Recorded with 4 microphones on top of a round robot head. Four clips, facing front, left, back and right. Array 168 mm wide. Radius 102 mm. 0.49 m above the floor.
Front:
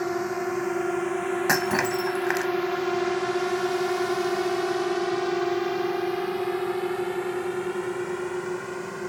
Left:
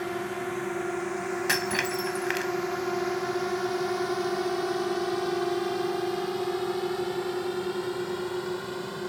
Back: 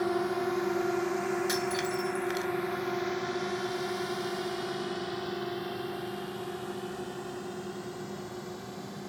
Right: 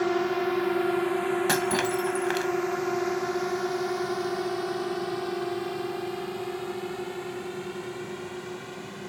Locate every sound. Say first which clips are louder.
0.0 s a drone: right 6 dB, front 2 dB; 75° right; by 9.1 s 30° left
1.5 s breaking glass: right 3 dB, front 7 dB; 25° right